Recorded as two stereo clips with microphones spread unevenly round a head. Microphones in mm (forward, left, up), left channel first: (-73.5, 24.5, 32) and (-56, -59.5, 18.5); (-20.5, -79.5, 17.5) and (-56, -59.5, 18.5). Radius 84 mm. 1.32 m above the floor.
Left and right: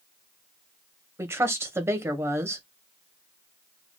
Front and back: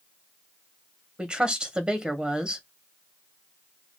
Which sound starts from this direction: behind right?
A woman speaking, at 1.2 s.